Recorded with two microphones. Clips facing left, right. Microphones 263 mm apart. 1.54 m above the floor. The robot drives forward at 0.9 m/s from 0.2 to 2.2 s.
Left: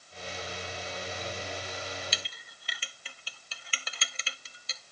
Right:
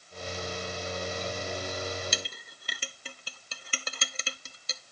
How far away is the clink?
About 0.7 m.